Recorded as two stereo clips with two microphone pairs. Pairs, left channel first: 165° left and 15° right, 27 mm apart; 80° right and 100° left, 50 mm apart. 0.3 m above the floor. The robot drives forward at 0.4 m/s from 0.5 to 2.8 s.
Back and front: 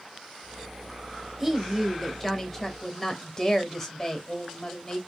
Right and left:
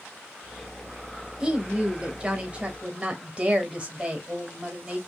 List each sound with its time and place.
1.4 s a woman speaking: 45° left, 1.0 m; by 5.0 s 115° left, 0.9 m